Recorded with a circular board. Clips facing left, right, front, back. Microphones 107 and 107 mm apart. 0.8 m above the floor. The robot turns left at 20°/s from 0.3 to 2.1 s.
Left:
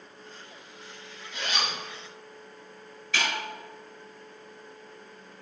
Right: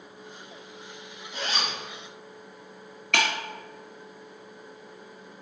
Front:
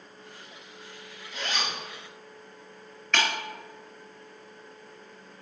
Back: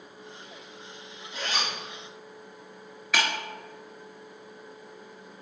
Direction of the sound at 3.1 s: 100° right.